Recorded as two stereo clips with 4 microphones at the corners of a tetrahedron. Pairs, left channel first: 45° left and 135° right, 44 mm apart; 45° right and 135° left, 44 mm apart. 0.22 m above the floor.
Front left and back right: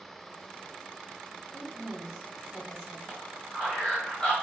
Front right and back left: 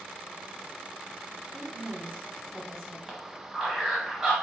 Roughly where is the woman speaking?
Behind left.